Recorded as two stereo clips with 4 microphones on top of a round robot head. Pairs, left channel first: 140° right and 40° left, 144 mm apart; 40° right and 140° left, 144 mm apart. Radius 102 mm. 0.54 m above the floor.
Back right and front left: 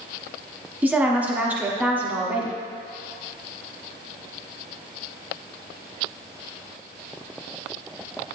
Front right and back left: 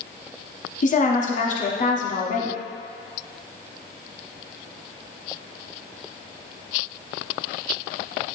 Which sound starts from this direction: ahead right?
A woman speaking, at 0.8 s.